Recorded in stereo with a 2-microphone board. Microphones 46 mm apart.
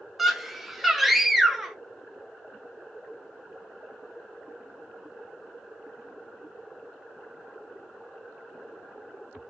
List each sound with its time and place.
0.2 s a scream: centre (ahead or behind), 0.7 m